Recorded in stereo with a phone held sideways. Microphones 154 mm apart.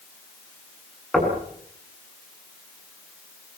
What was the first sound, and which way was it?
Knocking, centre (ahead or behind).